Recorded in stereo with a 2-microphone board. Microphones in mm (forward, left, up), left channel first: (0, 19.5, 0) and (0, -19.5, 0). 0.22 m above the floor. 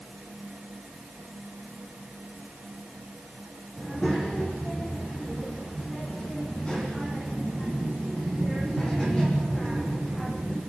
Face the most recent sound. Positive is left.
turn(degrees=25)  # may be behind; listen again after turning